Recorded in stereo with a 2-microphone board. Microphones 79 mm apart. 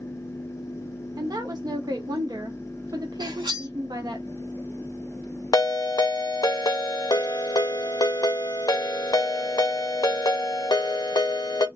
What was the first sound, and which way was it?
A woman speaking, 50° right (ahead or behind).